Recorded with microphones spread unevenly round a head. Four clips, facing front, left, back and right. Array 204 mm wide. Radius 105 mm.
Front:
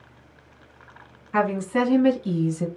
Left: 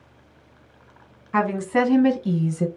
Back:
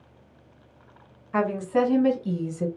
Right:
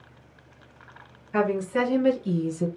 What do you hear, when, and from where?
1.3 s a woman speaking: 70° left, 1.5 m; by 2.7 s 50° left, 0.8 m